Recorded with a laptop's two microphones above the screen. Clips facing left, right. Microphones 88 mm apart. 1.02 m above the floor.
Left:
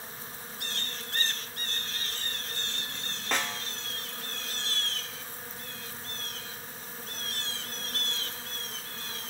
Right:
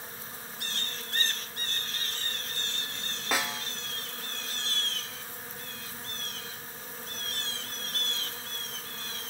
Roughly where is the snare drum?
Centre.